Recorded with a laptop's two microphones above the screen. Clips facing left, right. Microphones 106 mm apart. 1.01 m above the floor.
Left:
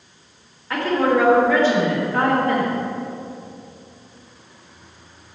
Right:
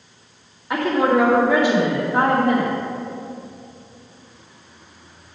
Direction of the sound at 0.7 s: 15° right (ahead or behind).